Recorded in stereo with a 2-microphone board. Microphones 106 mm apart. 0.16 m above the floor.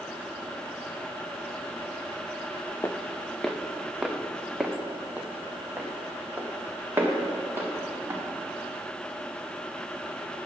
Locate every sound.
2.8 s footsteps: 25° left (ahead or behind), 0.6 m; by 8.2 s 20° right (ahead or behind), 3 m